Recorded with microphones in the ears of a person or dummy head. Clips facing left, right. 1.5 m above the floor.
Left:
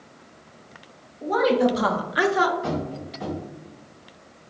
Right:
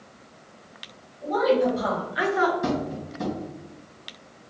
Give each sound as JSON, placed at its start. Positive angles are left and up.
{"t": 1.2, "sound": "a woman speaking", "side_deg": 75, "distance_m": 1.2}
{"t": 2.6, "sound": "tapping", "side_deg": -60, "distance_m": 2.0}